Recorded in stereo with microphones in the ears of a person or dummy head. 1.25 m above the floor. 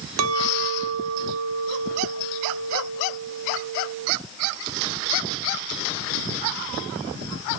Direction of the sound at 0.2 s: 75° right (ahead or behind).